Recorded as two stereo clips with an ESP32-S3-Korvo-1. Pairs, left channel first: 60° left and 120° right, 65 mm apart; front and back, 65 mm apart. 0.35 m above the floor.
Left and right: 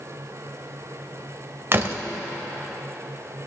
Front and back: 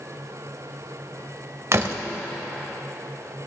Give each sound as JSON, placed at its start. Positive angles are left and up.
{"t": 1.7, "sound": "a door slam", "azimuth_deg": -160, "distance_m": 0.7}